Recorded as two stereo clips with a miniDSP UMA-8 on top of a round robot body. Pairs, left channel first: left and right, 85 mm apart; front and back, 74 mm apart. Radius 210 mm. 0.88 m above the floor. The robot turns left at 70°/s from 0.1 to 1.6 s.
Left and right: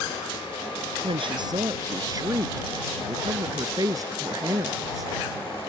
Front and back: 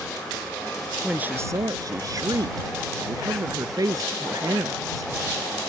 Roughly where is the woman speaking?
Right.